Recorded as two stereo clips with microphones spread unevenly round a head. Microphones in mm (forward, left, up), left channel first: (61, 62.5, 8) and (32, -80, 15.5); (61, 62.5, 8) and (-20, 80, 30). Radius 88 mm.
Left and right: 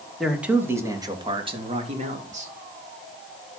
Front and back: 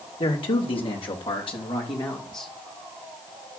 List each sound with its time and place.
0.2 s a man speaking: 15° right, 2.5 m; by 2.5 s 65° right, 4 m